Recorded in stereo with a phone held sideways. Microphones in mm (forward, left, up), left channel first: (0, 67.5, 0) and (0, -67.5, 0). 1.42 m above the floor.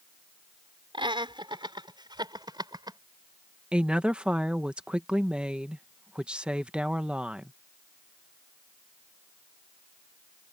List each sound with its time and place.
0.9 s laughter: 40° right (ahead or behind); by 3.0 s 30° right (ahead or behind)
3.7 s a woman speaking: 10° right (ahead or behind)